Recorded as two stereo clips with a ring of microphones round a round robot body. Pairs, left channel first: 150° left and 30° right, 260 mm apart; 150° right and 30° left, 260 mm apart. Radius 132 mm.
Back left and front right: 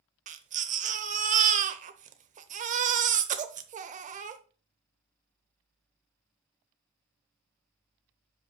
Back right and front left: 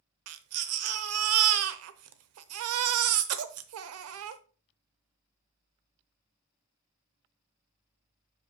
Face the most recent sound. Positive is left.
turn(degrees=25)